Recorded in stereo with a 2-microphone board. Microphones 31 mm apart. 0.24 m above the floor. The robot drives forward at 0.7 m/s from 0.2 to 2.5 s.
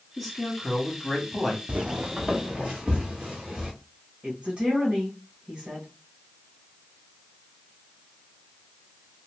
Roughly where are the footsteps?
Right.